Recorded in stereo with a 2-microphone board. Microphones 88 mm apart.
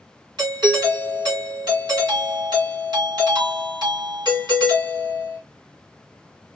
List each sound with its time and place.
0.4 s a doorbell: 55° right (ahead or behind), 2.5 m